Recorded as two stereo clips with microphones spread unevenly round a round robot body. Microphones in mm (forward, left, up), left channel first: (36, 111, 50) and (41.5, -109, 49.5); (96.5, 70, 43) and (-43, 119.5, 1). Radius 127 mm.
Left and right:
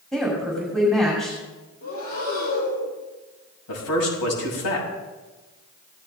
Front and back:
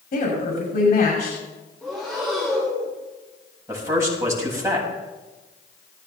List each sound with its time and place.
0.1 s a woman speaking: 5° left, 6.5 m
1.8 s breathing: 70° left, 6.5 m
3.7 s a man speaking: 90° left, 6.5 m